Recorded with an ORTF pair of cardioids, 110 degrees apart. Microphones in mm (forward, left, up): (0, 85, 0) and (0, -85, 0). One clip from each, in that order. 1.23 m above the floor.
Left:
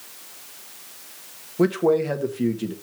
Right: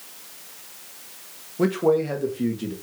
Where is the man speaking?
20° left, 1.5 m.